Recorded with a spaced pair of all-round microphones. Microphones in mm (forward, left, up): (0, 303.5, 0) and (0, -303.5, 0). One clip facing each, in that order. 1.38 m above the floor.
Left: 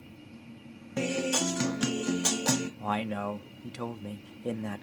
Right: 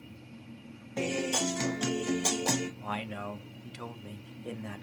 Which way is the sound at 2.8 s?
70° left (ahead or behind).